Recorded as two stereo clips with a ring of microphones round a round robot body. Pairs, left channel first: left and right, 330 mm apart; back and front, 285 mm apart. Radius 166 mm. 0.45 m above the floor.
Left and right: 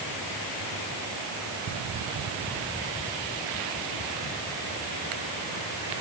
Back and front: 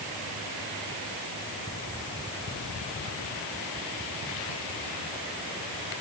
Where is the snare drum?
No snare drum in this recording.